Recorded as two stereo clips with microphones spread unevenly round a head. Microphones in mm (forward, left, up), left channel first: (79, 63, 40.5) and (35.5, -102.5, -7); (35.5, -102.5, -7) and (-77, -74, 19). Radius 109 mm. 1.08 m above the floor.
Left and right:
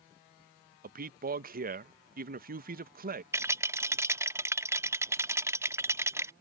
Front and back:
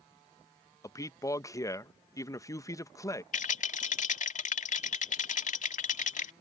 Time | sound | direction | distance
0.8 | a man speaking | 75° right | ?
3.3 | a rattle | 20° right | ?